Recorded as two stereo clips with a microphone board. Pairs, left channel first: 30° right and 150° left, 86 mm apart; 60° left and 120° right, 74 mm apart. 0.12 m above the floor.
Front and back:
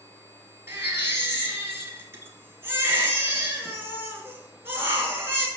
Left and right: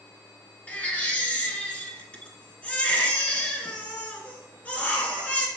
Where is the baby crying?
115° left, 1.0 m.